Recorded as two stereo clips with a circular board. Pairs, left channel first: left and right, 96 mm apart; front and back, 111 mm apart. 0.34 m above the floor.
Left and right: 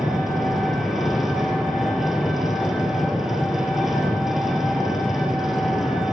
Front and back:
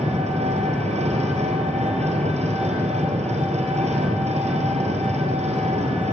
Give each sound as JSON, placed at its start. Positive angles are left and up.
{"t": 0.0, "sound": "an engine running", "azimuth_deg": -175, "distance_m": 3.5}